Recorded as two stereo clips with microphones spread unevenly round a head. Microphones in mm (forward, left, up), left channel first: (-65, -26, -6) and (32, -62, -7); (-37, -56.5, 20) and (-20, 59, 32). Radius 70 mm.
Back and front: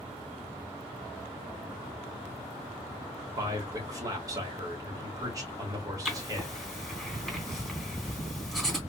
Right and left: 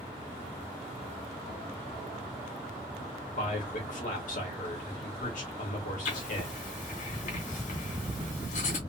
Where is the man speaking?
75° right, 2.0 m.